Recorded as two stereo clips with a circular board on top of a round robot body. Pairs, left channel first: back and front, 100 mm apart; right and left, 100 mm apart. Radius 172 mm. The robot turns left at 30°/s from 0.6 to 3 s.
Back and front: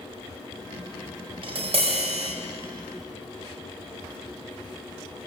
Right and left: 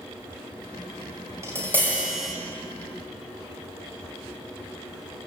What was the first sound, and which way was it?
Tapping, 30° left.